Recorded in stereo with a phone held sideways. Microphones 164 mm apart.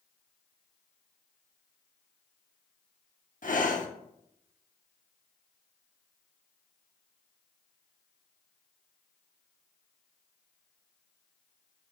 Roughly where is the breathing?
Left.